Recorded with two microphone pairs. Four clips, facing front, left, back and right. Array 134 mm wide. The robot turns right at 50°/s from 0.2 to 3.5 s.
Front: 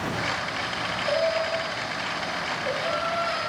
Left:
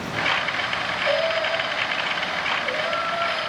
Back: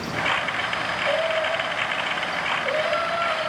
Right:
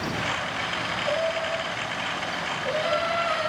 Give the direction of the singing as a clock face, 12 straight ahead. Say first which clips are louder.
Left 4 dB, back 1 dB; 8 o'clock.